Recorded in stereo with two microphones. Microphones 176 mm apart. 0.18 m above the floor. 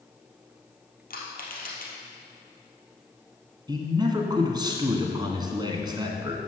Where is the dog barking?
I don't hear a dog barking.